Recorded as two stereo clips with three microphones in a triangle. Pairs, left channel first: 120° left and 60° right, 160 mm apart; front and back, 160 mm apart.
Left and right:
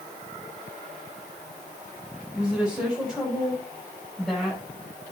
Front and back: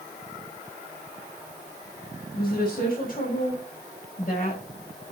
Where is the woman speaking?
25° left, 6 m; by 5.1 s 40° left, 5.5 m.